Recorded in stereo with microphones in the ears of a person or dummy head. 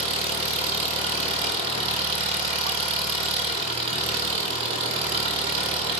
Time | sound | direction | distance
0.0 | an engine running | 30° right (ahead or behind) | 1.4 m